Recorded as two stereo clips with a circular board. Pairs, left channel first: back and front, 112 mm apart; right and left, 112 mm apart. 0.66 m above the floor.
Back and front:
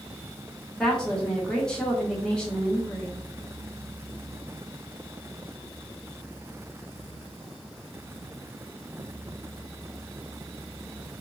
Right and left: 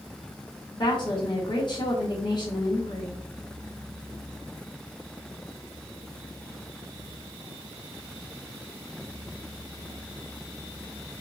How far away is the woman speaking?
About 1.1 m.